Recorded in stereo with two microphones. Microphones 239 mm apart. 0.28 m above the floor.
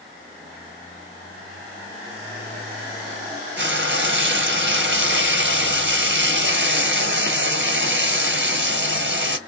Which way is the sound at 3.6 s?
55° right (ahead or behind).